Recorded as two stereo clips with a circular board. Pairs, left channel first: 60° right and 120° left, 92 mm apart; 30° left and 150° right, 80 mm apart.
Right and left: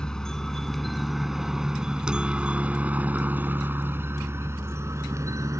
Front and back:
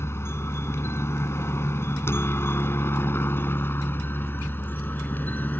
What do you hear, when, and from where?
0.0 s a helicopter: 15° left; by 5.6 s 85° left